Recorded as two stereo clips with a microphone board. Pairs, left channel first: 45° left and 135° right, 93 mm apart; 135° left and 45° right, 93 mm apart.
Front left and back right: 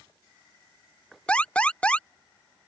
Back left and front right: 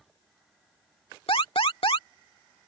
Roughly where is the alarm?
Behind left.